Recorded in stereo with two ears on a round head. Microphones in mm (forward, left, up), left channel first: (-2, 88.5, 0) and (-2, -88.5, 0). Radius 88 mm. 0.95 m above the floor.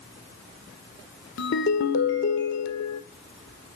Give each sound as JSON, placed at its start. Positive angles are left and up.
{"t": 1.4, "sound": "a ringtone", "side_deg": 65, "distance_m": 1.7}